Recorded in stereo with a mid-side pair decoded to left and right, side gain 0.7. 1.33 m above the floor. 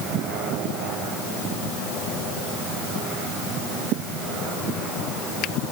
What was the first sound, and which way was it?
Only background noise.